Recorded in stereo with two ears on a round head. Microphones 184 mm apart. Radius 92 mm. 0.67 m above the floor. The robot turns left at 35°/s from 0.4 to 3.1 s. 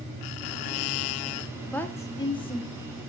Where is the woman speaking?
5° left (ahead or behind), 1.1 m; by 3.1 s 40° left (ahead or behind), 1.1 m.